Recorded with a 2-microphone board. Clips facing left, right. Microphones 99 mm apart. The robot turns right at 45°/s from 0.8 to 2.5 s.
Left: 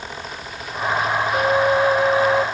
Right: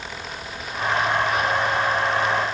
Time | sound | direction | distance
1.3 | a flute | 60° left | ?